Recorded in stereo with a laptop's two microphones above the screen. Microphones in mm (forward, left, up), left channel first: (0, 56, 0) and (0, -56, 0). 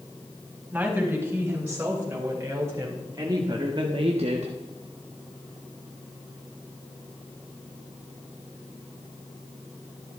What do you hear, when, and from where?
0.7 s a woman speaking: 15° right (ahead or behind), 5 m; by 4.5 s 75° right (ahead or behind), 1.1 m